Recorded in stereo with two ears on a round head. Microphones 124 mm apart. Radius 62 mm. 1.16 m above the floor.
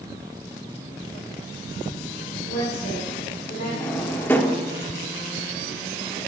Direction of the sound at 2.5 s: 80° left.